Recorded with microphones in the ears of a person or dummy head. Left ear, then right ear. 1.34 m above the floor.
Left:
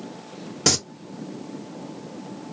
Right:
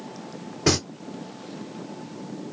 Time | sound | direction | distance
0.7 | singing | 85° left | 1.4 m